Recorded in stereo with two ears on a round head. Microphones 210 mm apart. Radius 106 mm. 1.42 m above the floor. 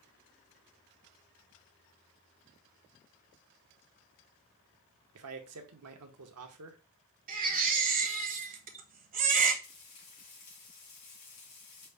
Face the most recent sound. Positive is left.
turn(degrees=85)